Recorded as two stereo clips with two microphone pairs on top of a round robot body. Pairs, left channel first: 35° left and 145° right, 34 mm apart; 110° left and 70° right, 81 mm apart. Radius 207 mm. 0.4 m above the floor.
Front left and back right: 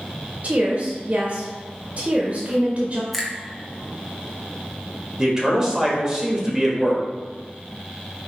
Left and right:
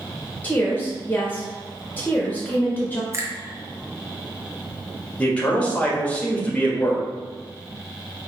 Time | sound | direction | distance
0.4 | a woman speaking | 175° right | 1.0 m
3.1 | a finger snap | 55° right | 1.3 m
5.2 | a man speaking | straight behind | 1.5 m